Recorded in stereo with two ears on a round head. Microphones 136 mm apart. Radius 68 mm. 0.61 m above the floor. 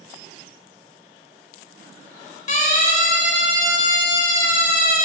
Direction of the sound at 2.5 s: 50° left (ahead or behind).